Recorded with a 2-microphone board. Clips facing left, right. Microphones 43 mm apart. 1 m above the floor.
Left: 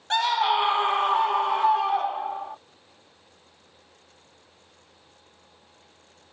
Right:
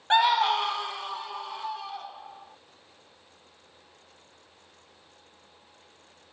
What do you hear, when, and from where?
0.1 s a scream: 25° right (ahead or behind); by 2.6 s 60° left (ahead or behind)